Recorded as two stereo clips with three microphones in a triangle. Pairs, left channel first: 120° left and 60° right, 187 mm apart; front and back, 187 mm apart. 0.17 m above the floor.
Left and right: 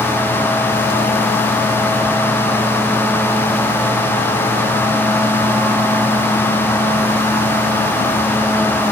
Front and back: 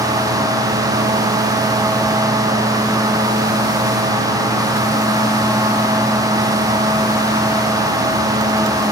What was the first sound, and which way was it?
Only background noise.